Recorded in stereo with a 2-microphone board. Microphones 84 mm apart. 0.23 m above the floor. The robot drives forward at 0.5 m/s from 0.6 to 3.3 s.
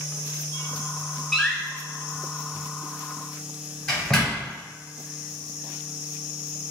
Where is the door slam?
Centre (ahead or behind), 1.8 m.